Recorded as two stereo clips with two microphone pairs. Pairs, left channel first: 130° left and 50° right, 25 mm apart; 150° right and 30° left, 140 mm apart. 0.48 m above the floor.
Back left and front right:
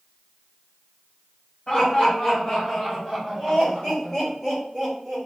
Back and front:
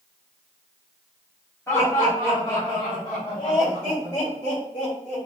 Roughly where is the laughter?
Behind left.